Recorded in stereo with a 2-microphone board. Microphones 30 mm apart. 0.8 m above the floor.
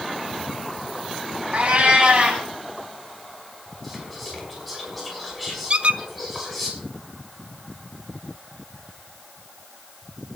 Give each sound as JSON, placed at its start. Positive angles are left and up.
{"t": 1.5, "sound": "a cat meowing", "side_deg": -50, "distance_m": 3.0}
{"t": 3.8, "sound": "whispering", "side_deg": 0, "distance_m": 6.5}
{"t": 5.7, "sound": "a squeak", "side_deg": -40, "distance_m": 0.6}